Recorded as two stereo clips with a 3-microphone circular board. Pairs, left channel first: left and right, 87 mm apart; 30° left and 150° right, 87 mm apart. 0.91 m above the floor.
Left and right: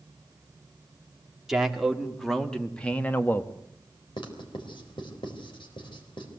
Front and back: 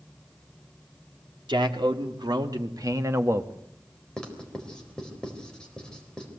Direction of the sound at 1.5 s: 175° right.